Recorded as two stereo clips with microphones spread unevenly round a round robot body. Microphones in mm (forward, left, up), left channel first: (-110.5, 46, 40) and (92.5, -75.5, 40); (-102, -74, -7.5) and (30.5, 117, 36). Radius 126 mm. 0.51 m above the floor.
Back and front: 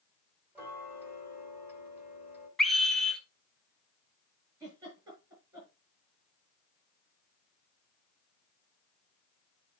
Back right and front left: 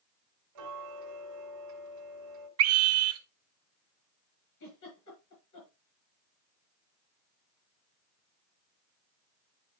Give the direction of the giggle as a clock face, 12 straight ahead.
4 o'clock.